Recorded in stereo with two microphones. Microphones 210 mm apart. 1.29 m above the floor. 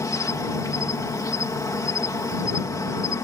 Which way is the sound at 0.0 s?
15° left (ahead or behind).